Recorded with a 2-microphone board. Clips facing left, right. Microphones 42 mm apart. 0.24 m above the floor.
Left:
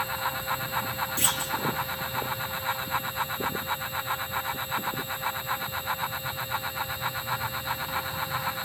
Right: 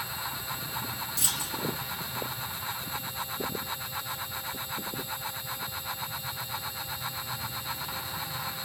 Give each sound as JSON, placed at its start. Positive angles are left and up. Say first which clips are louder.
{"t": 1.2, "sound": "a clunk", "louder": "left 4 dB", "side_deg": 35, "distance_m": 2.5}